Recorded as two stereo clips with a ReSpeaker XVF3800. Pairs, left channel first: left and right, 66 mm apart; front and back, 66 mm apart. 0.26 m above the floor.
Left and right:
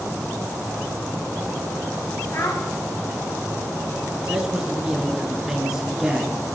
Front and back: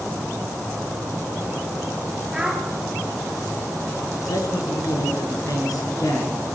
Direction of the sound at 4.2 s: 10° right.